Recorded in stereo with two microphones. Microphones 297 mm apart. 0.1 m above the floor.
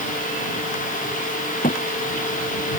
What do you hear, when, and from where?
1.6 s a thud: 30° left (ahead or behind)